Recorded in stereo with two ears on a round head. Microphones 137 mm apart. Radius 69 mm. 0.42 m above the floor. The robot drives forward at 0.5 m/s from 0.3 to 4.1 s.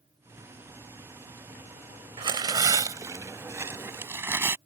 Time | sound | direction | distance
2.2 | tearing paper | 30° right (ahead or behind) | ?